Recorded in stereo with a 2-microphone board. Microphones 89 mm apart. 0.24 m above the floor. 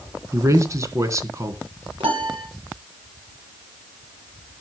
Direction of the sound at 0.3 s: 35° right (ahead or behind).